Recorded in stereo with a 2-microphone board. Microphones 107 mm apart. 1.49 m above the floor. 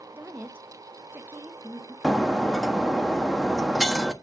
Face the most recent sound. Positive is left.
turn(degrees=5)  # may be behind; listen again after turning